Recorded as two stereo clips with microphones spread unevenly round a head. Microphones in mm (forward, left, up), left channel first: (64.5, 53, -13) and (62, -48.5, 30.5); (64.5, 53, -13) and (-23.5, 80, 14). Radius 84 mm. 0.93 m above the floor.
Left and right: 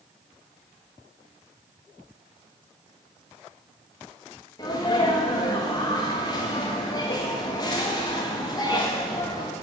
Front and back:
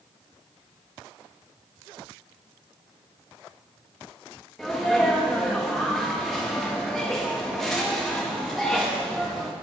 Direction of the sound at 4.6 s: 60° left.